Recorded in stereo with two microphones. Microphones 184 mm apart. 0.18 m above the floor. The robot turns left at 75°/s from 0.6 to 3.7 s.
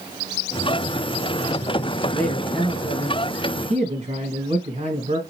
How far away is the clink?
I don't hear a clink.